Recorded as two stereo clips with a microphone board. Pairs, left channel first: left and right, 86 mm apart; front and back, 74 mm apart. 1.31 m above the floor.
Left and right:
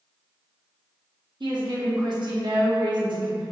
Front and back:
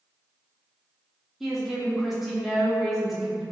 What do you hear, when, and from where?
1.4 s a woman speaking: 95° right, 0.6 m